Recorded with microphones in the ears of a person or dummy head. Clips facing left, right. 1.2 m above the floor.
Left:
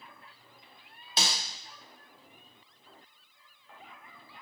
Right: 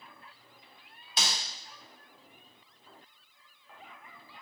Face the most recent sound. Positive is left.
turn(degrees=25)  # may be behind; listen again after turning